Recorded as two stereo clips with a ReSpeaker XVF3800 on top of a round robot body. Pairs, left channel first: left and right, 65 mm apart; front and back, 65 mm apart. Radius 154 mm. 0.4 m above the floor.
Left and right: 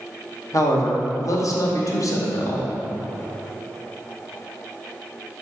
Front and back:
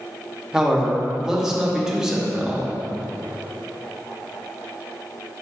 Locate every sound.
0.5 s a man speaking: 100° left, 1.9 m